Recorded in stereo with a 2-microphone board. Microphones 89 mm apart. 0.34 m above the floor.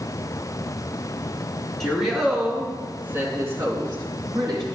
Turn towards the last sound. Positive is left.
turn(degrees=-55)  # may be behind; listen again after turning